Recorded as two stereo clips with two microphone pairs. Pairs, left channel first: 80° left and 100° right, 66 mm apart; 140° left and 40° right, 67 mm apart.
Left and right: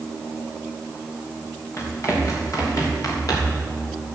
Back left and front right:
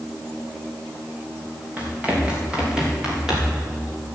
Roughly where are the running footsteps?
Ahead left.